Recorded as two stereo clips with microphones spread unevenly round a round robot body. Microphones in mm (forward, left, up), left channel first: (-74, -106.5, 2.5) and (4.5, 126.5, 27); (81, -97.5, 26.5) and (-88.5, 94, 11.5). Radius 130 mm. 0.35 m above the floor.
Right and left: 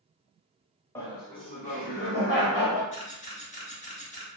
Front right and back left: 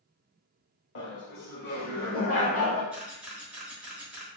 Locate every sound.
0.9 s laughter: 40° right, 1.0 m; by 2.8 s 110° right, 1.3 m
2.9 s a camera shutter: 145° right, 1.1 m